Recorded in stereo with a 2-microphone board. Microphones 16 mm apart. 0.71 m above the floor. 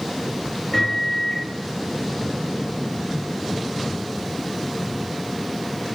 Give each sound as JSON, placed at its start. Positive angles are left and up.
{"t": 0.7, "sound": "a microwave", "side_deg": 30, "distance_m": 0.9}